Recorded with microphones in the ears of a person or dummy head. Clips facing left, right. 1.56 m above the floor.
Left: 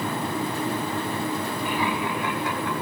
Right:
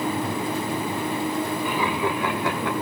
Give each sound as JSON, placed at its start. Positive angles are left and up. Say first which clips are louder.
{"t": 1.6, "sound": "laughter", "louder": "right 2 dB", "side_deg": -75, "distance_m": 5.0}